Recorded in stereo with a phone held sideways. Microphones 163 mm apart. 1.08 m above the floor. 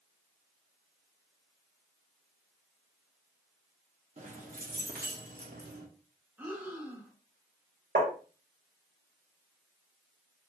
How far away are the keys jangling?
About 1.1 m.